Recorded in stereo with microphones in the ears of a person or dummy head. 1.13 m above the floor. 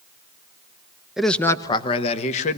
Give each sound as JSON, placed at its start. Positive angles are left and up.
{"t": 1.2, "sound": "a man speaking", "side_deg": 0, "distance_m": 0.7}